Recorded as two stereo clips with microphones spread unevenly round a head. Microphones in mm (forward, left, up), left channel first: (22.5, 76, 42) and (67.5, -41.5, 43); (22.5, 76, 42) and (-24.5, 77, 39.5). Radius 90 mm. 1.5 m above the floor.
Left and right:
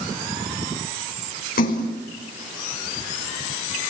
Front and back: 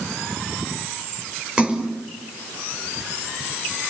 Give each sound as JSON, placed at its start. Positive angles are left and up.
{"t": 1.6, "sound": "a splash", "azimuth_deg": 110, "distance_m": 4.5}